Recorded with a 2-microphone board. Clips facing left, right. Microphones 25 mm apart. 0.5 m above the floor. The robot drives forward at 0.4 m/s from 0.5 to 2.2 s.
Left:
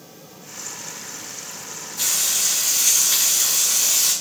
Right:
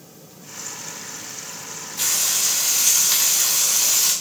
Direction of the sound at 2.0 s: 65° right (ahead or behind).